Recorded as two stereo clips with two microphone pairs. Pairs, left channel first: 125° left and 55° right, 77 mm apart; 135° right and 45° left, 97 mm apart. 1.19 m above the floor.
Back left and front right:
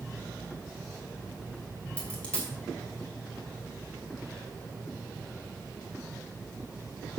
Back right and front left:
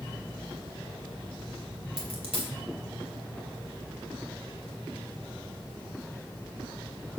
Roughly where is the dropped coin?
Ahead left.